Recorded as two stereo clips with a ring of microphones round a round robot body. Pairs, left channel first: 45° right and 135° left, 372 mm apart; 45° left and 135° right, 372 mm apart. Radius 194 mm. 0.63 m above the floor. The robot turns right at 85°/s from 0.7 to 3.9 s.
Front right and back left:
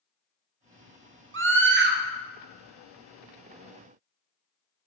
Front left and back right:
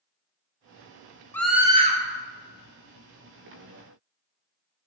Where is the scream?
125° left, 0.9 m; by 2.0 s straight behind, 0.9 m.